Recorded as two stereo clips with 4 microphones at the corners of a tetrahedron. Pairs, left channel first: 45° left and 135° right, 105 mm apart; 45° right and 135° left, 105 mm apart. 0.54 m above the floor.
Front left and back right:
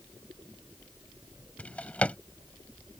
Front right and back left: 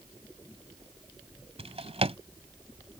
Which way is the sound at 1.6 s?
120° left.